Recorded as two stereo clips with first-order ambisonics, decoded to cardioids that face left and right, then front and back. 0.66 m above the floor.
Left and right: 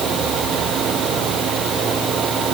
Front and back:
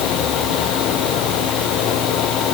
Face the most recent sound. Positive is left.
No sound to turn to.